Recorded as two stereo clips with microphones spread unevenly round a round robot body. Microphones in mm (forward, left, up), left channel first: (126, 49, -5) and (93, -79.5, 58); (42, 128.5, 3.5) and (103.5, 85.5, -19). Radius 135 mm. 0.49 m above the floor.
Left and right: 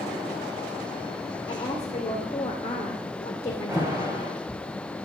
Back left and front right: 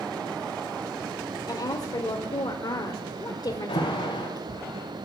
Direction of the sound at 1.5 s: 115° left.